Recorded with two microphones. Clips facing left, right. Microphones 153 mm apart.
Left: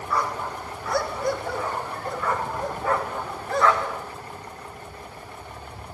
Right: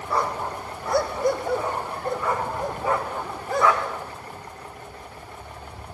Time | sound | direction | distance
0.1 | a dog barking | 30° right (ahead or behind) | 1.7 m